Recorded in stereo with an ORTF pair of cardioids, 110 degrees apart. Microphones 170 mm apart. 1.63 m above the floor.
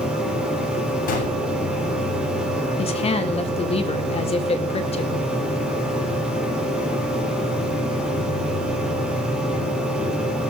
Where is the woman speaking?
35° left, 3.5 m.